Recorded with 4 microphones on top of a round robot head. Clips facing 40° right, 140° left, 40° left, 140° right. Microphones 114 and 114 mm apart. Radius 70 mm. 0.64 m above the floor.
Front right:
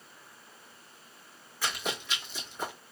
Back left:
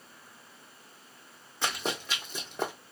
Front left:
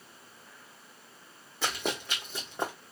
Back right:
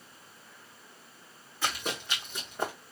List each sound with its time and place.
1.6 s running footsteps: 75° left, 1.8 m; by 2.7 s 115° left, 1.5 m